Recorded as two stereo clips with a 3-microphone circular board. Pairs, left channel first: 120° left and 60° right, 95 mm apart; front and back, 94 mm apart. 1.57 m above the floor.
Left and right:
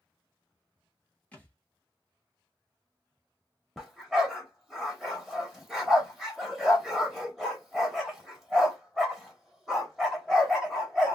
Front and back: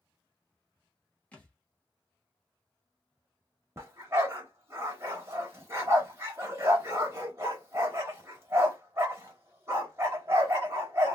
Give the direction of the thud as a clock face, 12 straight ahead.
10 o'clock.